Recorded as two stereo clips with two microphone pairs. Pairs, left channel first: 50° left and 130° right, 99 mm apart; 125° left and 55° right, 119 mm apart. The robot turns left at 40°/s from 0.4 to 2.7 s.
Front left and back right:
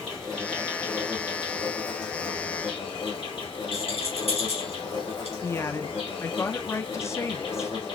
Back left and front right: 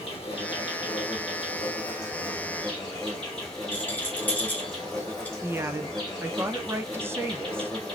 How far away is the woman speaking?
About 0.5 m.